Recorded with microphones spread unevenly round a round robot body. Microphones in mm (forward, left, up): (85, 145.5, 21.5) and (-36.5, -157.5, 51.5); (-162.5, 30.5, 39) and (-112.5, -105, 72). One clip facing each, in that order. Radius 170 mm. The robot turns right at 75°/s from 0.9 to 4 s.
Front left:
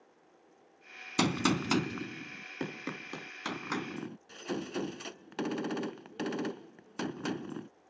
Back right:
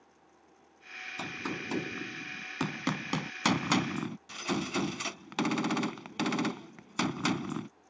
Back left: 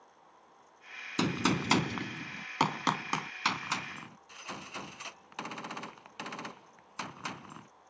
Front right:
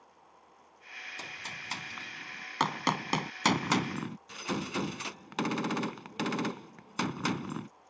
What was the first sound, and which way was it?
A gunshot, 90° left.